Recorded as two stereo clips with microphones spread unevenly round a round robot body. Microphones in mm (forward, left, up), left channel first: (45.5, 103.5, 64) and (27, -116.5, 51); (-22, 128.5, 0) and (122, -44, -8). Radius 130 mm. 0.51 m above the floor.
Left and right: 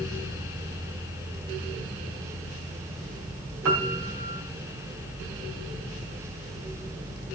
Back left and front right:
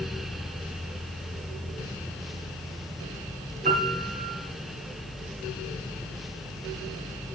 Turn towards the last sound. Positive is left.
turn(degrees=-115)